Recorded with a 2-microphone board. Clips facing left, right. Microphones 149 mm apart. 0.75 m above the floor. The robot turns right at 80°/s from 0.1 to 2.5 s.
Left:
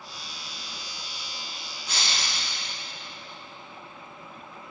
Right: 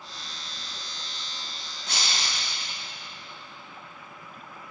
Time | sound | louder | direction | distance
1.9 | breaking glass | even | 95° right | 4 m